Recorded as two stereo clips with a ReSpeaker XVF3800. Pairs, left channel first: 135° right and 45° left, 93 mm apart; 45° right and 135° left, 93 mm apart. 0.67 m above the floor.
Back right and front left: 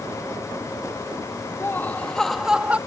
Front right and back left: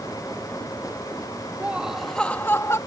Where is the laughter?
165° right; by 2.8 s 20° right.